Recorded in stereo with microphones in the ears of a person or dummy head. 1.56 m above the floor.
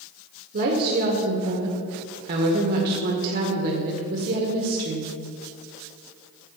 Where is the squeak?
I don't hear a squeak.